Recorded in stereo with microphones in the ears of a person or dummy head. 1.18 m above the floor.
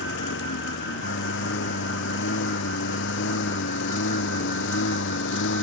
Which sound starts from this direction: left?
A lawn mower, at 0.0 s.